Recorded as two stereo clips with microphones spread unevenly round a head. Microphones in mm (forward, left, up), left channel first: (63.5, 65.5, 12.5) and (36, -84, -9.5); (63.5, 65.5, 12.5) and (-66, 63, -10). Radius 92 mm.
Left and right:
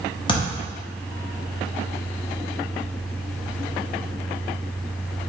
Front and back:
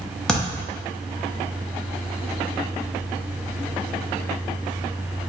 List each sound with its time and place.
0.3 s a thud: 70° left, 0.9 m